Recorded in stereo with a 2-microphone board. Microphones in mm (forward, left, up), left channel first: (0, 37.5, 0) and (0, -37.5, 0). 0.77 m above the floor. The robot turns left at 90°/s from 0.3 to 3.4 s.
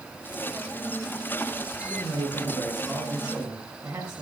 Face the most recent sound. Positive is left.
turn(degrees=-25)